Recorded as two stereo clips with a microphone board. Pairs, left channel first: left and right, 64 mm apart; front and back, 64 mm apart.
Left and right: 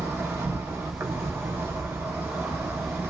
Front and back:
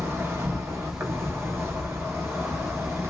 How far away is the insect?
About 0.7 m.